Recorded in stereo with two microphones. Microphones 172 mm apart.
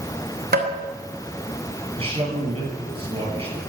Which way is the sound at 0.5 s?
70° right (ahead or behind).